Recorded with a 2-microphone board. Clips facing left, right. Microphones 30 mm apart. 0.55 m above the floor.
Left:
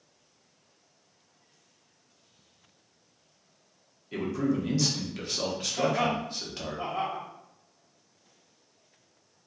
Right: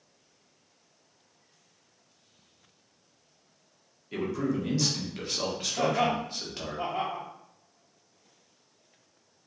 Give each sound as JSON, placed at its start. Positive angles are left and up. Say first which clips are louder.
{"t": 4.1, "sound": "a man speaking", "louder": "left 1 dB", "side_deg": 0, "distance_m": 0.7}
{"t": 5.8, "sound": "laughter", "louder": "right 1 dB", "side_deg": -15, "distance_m": 0.7}